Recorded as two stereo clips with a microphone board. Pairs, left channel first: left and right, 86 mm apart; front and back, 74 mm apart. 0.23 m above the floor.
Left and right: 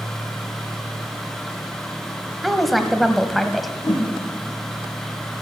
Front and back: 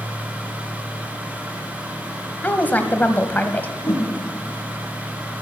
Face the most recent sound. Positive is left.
turn(degrees=50)